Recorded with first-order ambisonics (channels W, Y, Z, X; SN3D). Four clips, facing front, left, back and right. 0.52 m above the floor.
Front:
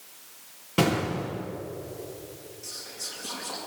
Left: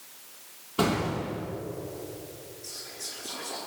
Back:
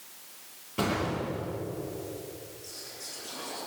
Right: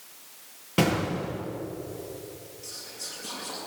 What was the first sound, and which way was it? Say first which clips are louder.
An explosion: right 2 dB, front 4 dB; 55° right.